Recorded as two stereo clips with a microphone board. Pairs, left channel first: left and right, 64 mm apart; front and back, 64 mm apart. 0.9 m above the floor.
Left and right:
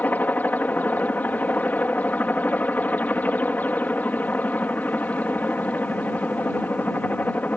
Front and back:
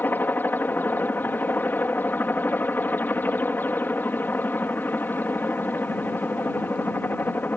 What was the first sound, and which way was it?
A helicopter, 40° left.